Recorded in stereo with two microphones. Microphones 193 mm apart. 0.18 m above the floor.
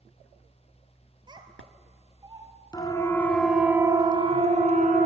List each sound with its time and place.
1.3 s a child speaking: 25° right (ahead or behind), 3 m; by 2.5 s 20° right (ahead or behind), 3.5 m
2.7 s a siren: 20° left (ahead or behind), 2.5 m; by 5.1 s 45° right (ahead or behind), 2.5 m